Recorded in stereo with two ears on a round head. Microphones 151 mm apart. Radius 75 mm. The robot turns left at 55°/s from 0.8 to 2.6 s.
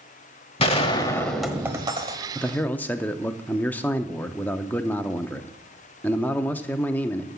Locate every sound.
0.6 s a gunshot: 35° left, 1.0 m; by 2.6 s 65° right, 1.0 m
2.4 s a man speaking: 5° left (ahead or behind), 0.7 m; by 7.3 s 10° left (ahead or behind), 0.7 m